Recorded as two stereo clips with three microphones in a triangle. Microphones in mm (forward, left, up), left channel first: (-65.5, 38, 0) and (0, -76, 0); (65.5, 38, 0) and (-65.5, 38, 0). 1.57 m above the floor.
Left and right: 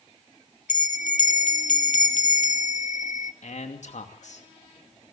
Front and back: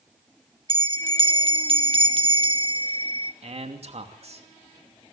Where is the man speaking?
145° left, 2.5 m.